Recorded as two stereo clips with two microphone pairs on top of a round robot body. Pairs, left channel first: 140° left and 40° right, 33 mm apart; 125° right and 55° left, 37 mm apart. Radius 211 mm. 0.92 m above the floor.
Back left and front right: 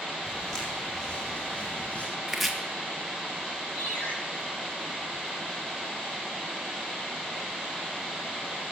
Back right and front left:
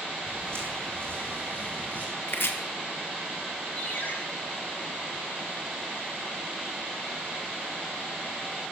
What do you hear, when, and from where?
0.3 s footsteps: 65° left, 2.5 m; by 2.1 s 95° left, 2 m
2.3 s chopping: 125° right, 1.9 m
3.8 s a ringtone: 175° right, 3 m